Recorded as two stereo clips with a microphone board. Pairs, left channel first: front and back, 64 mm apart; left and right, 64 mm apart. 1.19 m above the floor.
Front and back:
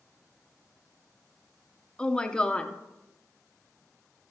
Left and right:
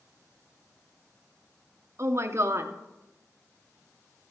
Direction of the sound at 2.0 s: 70° right.